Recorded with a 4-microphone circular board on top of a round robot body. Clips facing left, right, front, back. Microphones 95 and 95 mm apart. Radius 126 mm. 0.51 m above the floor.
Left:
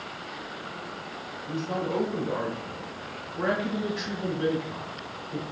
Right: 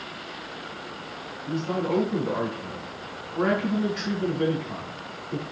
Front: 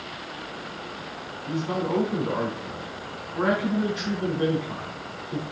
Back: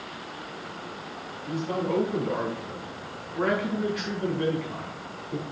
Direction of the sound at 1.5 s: 65° right.